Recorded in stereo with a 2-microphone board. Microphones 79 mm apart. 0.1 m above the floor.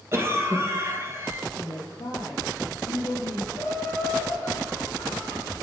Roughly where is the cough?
Right.